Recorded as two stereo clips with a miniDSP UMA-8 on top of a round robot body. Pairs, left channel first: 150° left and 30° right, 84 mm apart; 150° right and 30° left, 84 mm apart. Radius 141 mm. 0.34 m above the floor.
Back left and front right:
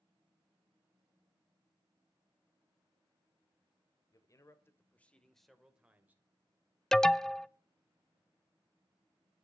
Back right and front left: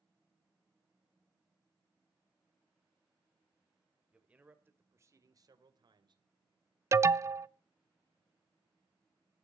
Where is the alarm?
70° left, 0.6 m.